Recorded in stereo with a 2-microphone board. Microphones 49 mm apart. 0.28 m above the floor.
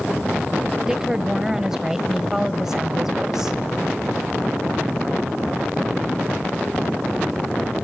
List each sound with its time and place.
0.9 s a woman speaking: 10° right (ahead or behind), 1.2 m